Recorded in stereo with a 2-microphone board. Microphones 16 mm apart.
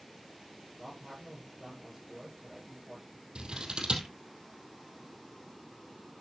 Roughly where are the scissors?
Right.